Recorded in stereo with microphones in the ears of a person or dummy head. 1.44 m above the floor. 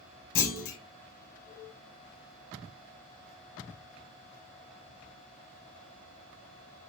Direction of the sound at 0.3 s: 80° left.